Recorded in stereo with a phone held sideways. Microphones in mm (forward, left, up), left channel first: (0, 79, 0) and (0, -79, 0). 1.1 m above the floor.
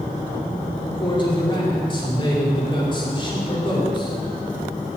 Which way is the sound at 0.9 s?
30° left (ahead or behind).